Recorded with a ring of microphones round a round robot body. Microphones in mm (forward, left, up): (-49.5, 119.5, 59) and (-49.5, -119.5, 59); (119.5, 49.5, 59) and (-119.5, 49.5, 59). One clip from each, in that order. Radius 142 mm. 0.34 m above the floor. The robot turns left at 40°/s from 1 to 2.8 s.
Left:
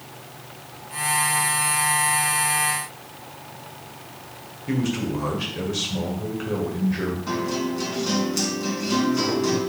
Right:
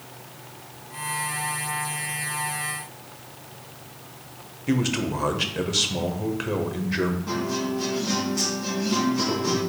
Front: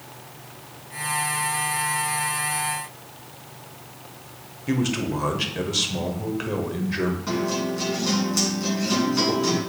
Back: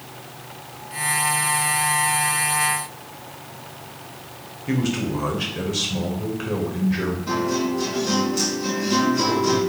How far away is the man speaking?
About 1.3 m.